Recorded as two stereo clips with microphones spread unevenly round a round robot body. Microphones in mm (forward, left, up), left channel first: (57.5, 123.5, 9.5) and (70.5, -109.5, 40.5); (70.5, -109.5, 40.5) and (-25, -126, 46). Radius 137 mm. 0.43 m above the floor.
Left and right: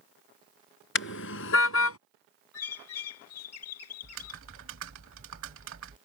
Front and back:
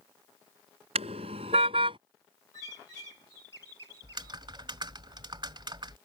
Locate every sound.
0.9 s a car horn: 140° left; by 2.0 s 130° left
2.5 s a bird: 80° left
4.0 s typing on a keyboard: 130° right